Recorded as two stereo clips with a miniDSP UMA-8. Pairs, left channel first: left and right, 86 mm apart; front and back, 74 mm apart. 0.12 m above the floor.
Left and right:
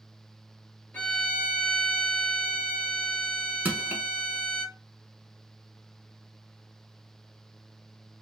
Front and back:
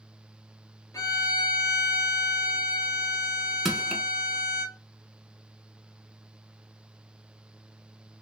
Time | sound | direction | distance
0.9 | a violin | 25° left | 0.8 m
3.6 | crushing | 95° right | 0.7 m